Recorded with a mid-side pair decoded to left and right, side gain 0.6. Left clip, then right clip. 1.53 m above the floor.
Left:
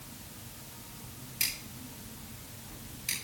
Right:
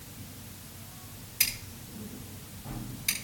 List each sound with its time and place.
1.4 s scissors: 65° right, 7 m